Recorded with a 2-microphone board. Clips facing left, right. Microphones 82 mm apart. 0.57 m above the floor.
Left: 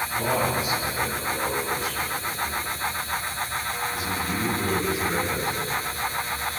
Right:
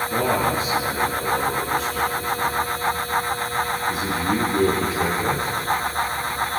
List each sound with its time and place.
0.1 s a man speaking: 85° right, 8 m